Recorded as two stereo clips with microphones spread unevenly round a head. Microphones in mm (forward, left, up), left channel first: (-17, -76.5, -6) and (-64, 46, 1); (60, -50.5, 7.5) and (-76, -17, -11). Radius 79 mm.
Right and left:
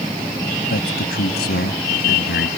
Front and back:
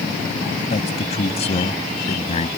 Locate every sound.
0.7 s a man speaking: 55° right